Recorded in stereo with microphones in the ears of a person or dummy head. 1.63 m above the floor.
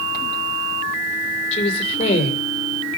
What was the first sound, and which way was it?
A woman speaking, 50° left (ahead or behind).